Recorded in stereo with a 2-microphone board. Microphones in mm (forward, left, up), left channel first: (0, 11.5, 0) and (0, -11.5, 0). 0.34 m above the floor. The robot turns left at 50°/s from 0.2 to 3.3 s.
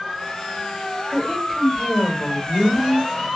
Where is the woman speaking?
15° left, 1.5 m; by 3.1 s 85° right, 1.5 m.